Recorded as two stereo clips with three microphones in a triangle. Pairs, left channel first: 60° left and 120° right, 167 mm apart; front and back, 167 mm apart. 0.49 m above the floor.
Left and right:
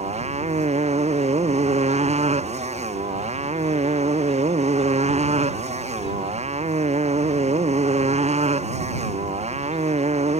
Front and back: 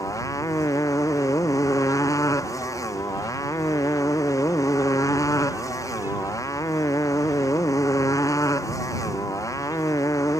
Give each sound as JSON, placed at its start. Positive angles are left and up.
{"t": 0.0, "sound": "a motorcycle", "azimuth_deg": -70}